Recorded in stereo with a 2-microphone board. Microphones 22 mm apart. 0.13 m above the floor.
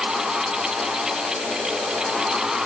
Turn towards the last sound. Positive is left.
No sound to turn to.